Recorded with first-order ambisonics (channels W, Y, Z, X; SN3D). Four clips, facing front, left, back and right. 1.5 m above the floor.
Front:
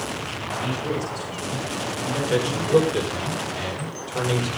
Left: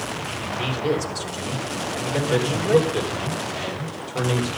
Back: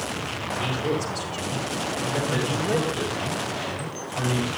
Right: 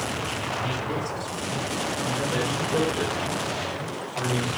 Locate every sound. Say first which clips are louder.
0.5 s a man speaking: left 8 dB, back 1 dB; 105° left, 5.5 m
2.3 s a man speaking: left 6 dB, front 8 dB; 35° left, 5.5 m